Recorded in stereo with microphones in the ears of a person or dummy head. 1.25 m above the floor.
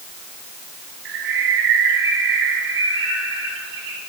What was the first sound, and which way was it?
A bird, 75° right (ahead or behind).